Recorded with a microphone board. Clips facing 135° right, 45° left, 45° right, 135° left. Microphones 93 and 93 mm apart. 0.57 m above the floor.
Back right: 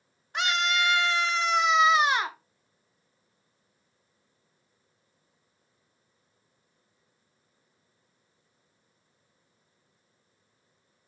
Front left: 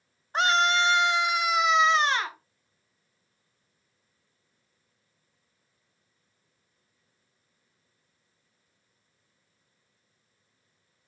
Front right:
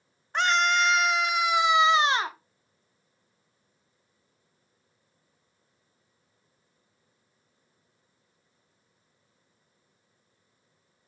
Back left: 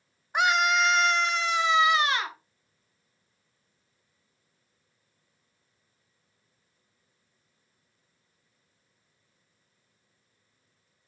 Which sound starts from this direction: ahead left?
A scream, at 0.3 s.